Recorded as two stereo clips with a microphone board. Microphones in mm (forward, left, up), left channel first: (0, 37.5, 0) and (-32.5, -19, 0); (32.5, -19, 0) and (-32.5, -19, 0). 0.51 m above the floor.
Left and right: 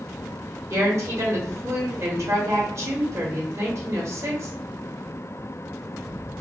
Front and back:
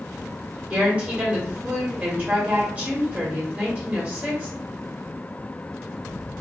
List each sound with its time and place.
0.7 s a woman speaking: 120° right, 1.3 m